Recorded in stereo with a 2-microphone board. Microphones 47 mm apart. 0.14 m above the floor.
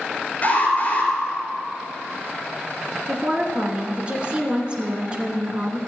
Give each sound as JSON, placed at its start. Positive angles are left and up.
{"t": 0.4, "sound": "an alarm", "side_deg": 30, "distance_m": 3.5}
{"t": 3.1, "sound": "a woman speaking", "side_deg": -20, "distance_m": 1.9}